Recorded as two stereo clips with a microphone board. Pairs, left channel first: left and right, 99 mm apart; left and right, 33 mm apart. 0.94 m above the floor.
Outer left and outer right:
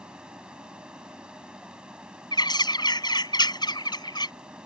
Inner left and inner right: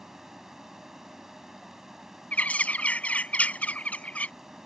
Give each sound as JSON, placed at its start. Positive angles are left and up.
{"t": 0.0, "sound": "running water", "side_deg": -10}
{"t": 2.3, "sound": "a bird", "side_deg": 50}